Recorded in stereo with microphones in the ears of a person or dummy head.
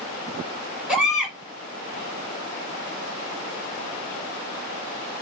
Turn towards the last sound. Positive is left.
turn(degrees=-5)  # may be behind; listen again after turning